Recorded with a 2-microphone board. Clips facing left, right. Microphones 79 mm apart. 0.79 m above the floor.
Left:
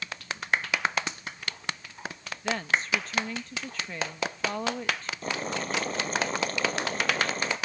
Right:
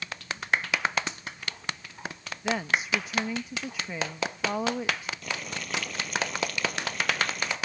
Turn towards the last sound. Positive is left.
turn(degrees=35)  # may be behind; listen again after turning